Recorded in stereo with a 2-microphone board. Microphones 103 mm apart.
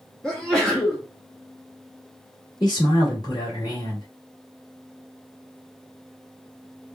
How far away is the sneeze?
About 0.9 m.